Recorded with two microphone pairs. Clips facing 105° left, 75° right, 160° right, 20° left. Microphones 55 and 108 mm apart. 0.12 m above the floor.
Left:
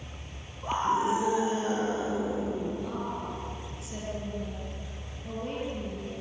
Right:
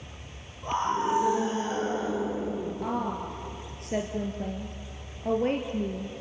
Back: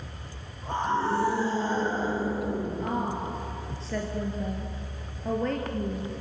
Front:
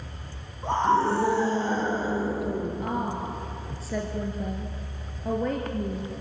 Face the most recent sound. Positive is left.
turn(degrees=-60)